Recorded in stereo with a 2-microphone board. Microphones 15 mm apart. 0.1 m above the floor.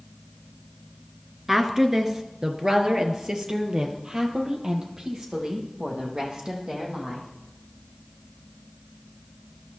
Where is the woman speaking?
20° right (ahead or behind), 1.2 m; by 7.3 s 55° right (ahead or behind), 4.5 m.